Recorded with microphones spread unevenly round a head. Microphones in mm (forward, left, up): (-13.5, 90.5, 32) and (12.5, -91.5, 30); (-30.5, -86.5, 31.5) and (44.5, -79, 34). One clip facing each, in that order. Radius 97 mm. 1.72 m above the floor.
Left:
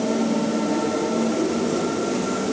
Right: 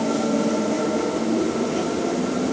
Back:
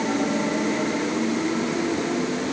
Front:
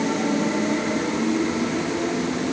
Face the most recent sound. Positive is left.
No sound to turn to.